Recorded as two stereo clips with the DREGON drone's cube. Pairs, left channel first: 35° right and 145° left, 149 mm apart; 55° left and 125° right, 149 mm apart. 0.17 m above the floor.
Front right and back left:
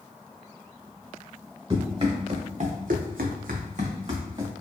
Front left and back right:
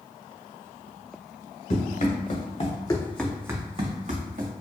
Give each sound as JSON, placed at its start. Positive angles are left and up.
{"t": 1.7, "sound": "running footsteps", "azimuth_deg": 85, "distance_m": 1.2}